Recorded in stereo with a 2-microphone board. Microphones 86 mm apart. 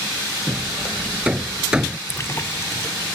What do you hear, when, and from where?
0.5 s hammering: 10° right (ahead or behind)
2.1 s a splash: 30° left (ahead or behind)